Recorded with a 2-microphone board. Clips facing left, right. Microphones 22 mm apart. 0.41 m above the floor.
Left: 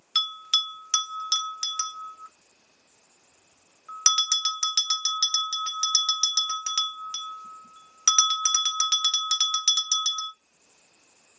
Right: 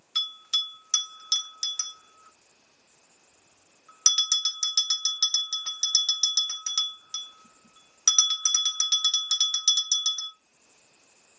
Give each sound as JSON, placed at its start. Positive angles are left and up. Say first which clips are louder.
{"t": 0.1, "sound": "a bell", "louder": "left 3 dB", "side_deg": 30, "distance_m": 0.6}